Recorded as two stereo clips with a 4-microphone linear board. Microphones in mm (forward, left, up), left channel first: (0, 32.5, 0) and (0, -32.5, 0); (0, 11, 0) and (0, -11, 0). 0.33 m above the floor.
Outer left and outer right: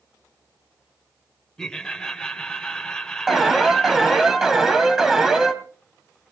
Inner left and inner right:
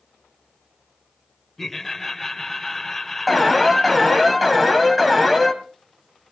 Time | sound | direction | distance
1.6 | laughter | 10° left (ahead or behind) | 1.2 m
3.3 | an alarm | 5° right (ahead or behind) | 1.4 m